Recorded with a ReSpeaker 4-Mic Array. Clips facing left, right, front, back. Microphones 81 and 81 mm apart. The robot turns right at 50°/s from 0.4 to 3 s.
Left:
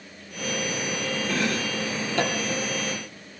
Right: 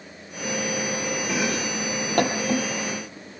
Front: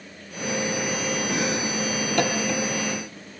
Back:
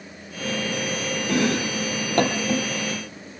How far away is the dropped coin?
I don't hear a dropped coin.